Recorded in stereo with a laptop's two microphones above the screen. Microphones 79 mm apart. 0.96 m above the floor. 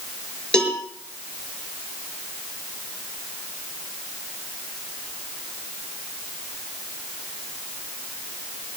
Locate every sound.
0.5 s a cowbell: 10° left (ahead or behind), 4 m